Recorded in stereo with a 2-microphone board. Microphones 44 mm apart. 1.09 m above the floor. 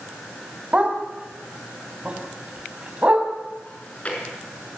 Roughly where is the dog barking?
Right.